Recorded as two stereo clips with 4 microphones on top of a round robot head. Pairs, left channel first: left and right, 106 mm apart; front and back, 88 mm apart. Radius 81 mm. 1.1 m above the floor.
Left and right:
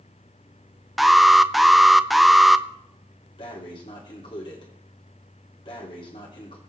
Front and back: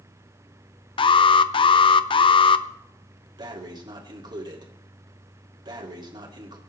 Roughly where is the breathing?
Behind left.